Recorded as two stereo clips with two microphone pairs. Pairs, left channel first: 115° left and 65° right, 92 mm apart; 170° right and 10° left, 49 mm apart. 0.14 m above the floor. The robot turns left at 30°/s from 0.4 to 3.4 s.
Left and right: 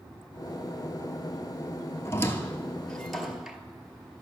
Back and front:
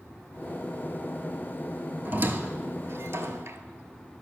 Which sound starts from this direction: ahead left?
A squeak, at 2.0 s.